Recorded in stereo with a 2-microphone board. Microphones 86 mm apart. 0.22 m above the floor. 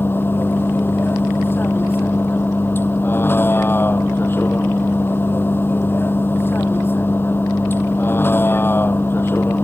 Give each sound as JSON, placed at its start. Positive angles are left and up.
{"t": 0.0, "sound": "a vehicle", "side_deg": 25}